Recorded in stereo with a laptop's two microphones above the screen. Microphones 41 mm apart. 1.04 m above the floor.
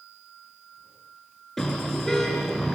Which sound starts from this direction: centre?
A car horn, at 1.6 s.